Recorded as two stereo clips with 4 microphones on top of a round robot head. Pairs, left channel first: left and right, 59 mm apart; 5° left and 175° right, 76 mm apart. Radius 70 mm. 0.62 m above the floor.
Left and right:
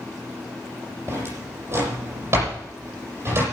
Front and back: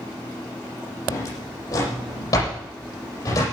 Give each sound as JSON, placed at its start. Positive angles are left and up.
{"t": 1.1, "sound": "a drawer", "azimuth_deg": -45, "distance_m": 7.5}